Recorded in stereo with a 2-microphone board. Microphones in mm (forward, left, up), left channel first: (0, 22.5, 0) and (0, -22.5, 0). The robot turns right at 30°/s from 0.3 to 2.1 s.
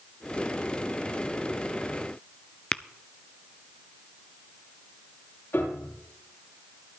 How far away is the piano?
About 9.5 m.